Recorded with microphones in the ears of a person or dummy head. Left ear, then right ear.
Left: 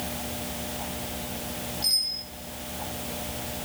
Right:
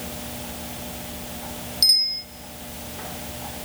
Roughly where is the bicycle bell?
Right.